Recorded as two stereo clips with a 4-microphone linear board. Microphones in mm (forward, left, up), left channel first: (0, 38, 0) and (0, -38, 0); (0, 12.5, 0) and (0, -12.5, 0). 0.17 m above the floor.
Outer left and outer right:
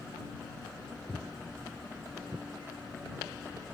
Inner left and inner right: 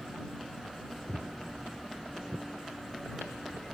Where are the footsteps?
5° right (ahead or behind); by 3.6 s 45° right (ahead or behind).